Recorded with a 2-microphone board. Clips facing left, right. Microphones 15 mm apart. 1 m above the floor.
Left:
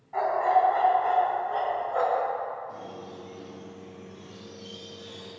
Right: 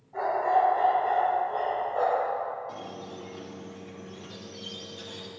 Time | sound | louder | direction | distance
0.1 | a dog barking | left 2 dB | 80° left | 3 m
2.7 | a squeak | right 1 dB | 75° right (ahead or behind) | 1.3 m